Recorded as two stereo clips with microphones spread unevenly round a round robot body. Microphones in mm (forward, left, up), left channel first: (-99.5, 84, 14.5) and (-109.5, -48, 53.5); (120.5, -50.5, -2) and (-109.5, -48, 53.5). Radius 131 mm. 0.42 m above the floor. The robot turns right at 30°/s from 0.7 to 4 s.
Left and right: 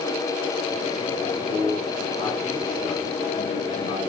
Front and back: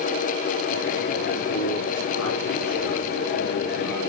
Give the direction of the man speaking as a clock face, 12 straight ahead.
2 o'clock.